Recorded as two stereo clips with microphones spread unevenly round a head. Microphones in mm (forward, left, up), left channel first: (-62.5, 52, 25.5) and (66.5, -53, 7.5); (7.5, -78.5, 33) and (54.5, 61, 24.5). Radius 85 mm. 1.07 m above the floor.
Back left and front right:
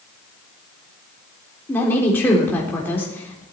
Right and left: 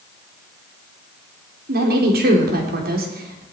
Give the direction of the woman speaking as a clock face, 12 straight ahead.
10 o'clock.